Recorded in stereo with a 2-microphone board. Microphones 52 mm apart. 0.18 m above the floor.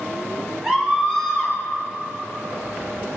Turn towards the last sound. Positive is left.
turn(degrees=-10)  # may be behind; listen again after turning